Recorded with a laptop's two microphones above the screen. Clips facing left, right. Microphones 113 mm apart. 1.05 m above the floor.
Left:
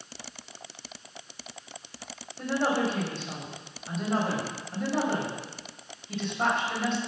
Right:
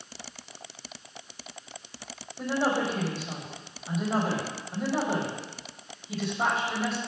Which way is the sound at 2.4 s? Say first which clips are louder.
Even; 5° right (ahead or behind).